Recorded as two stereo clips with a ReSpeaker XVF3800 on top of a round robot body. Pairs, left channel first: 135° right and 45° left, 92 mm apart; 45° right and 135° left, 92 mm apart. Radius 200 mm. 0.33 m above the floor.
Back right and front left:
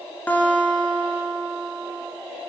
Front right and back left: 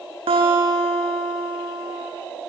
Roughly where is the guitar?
Behind left.